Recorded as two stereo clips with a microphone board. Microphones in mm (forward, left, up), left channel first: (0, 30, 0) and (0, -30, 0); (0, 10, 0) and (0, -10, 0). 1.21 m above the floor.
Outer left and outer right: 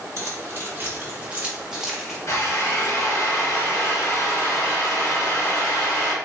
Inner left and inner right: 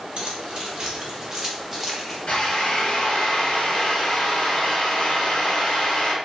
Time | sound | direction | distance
0.2 | keys jangling | 50° right (ahead or behind) | 1.3 m
2.3 | a drill | 55° left (ahead or behind) | 1.2 m